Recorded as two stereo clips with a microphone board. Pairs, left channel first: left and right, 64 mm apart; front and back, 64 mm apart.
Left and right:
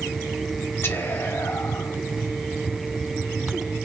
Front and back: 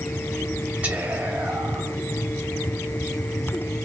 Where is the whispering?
120° left, 1.5 m.